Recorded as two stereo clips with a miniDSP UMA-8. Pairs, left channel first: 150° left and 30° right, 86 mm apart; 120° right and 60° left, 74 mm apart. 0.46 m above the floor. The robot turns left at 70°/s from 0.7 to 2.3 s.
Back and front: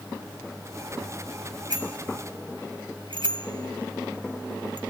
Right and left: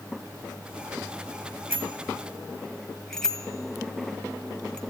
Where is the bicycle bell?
Straight ahead, 2 m; by 4.8 s 40° right, 2 m.